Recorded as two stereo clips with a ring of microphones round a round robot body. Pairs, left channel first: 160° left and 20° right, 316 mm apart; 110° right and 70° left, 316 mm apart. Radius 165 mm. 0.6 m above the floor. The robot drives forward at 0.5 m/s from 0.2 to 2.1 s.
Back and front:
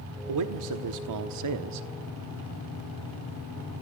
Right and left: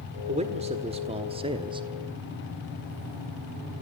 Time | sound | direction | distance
0.3 | a man speaking | straight ahead | 1.6 m